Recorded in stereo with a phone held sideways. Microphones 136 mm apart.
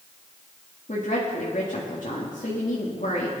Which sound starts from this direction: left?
A woman speaking, at 0.9 s.